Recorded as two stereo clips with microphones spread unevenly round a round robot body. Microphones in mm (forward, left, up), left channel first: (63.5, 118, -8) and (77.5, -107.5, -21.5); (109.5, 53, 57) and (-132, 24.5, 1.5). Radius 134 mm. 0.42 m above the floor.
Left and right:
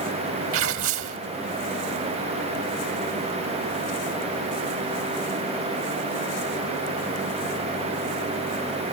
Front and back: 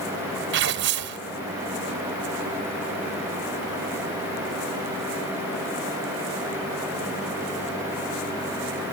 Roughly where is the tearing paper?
Behind right.